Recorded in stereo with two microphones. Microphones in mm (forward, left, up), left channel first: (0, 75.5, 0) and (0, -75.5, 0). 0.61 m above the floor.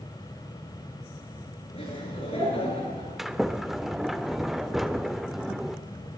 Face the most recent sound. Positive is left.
turn(degrees=0)  # may be behind; listen again after turning